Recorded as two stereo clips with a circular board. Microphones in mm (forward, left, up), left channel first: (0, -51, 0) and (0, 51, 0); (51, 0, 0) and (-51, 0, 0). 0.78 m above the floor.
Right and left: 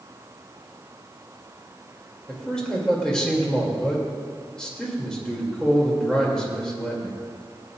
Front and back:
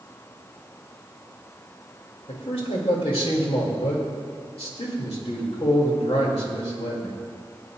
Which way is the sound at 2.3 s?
5° right.